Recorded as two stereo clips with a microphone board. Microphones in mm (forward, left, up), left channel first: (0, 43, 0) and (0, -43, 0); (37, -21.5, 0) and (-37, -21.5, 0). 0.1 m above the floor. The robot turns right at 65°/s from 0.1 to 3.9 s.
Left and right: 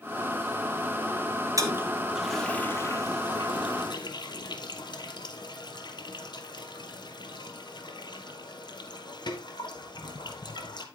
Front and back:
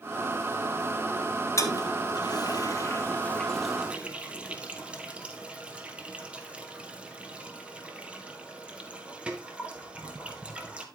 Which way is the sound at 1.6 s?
45° right.